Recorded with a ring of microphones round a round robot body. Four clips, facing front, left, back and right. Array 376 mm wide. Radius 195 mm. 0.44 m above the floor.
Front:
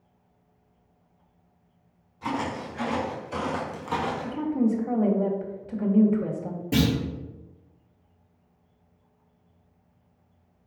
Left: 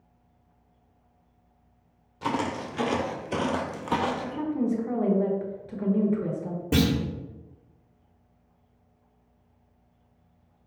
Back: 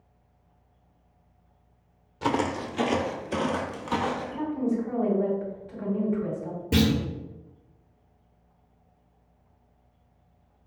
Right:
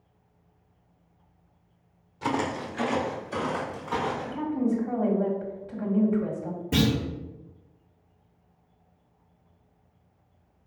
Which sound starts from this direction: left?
A clunk, at 6.7 s.